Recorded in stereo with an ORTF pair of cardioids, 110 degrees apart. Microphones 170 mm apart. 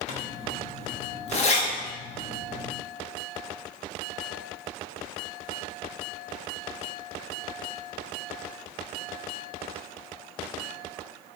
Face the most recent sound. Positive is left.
turn(degrees=40)